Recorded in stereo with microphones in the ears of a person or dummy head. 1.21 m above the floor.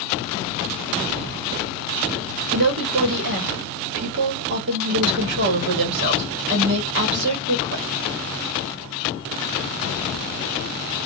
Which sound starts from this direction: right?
A woman speaking, at 2.5 s.